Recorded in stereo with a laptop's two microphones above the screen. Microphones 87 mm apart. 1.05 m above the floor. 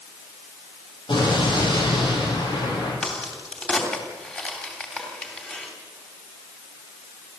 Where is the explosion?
65° left (ahead or behind), 9.5 m.